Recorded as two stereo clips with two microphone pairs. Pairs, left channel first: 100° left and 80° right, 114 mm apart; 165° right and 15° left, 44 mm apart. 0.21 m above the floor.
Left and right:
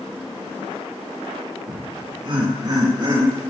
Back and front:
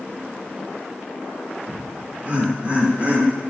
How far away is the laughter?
About 3.5 m.